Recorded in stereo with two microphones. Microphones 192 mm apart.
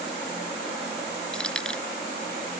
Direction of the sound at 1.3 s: 5° left (ahead or behind).